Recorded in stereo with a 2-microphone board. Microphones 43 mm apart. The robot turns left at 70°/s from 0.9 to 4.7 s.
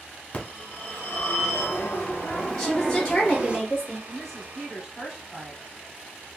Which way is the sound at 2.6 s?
10° left (ahead or behind).